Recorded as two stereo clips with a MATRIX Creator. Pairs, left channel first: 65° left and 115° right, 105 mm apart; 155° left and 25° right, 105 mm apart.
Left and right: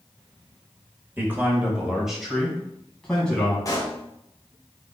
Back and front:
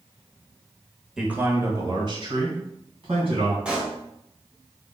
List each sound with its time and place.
1.2 s a man speaking: 100° right, 1.0 m; by 3.5 s 15° right, 2.5 m
3.6 s a pop: 50° left, 1.3 m